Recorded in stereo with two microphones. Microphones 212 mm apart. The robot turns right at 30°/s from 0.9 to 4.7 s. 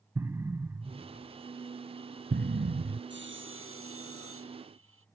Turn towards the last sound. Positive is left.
turn(degrees=-75)